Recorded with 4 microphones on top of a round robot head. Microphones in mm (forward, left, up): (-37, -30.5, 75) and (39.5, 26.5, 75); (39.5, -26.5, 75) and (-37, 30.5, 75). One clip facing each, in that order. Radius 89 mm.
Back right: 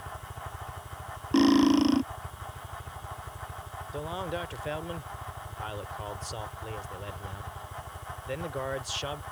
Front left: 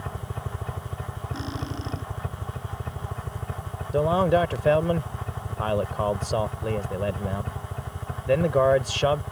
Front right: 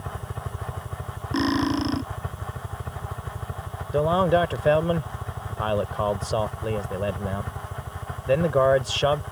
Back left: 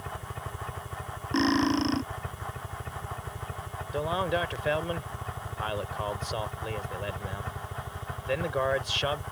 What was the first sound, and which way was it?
A helicopter, 30° left.